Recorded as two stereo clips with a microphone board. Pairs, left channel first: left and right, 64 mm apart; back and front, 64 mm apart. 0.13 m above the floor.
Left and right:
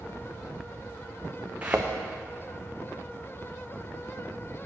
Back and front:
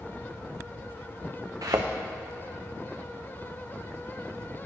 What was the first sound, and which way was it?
A thud, 20° right.